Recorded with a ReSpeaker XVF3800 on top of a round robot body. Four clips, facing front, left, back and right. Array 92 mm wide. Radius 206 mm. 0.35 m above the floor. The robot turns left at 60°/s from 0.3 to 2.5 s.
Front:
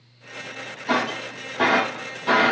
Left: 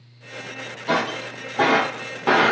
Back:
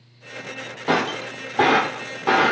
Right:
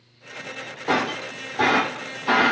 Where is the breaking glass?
160° right, 2.5 m; by 2.5 s 100° left, 2.5 m.